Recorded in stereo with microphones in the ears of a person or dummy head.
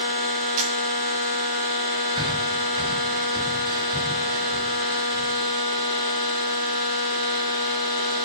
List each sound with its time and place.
0.6 s a camera shutter: 40° right (ahead or behind), 2.0 m
2.2 s breathing: 25° right (ahead or behind), 1.0 m